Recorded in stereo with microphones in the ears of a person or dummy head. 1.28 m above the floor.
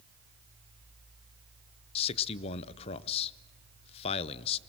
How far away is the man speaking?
About 0.6 m.